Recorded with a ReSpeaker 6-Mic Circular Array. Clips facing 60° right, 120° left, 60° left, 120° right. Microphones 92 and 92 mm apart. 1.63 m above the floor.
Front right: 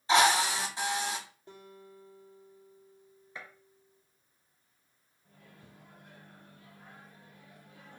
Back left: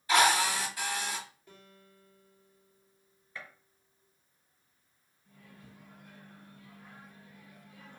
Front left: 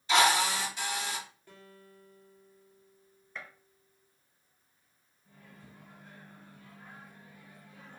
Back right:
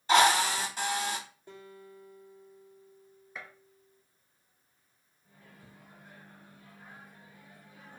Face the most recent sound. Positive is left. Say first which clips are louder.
# back left 2 dB, front left 1 dB
turn(degrees=-40)